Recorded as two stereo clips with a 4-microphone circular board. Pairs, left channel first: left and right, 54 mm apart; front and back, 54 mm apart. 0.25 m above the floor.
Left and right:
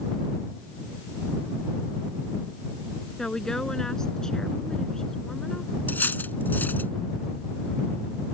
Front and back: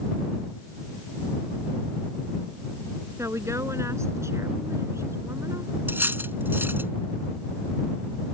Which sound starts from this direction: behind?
A woman speaking, at 3.2 s.